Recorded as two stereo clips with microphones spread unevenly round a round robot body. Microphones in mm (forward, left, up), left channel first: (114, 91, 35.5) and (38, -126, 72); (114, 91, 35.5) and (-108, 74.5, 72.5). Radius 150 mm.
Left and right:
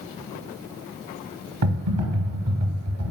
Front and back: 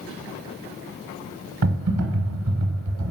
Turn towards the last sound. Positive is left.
turn(degrees=-145)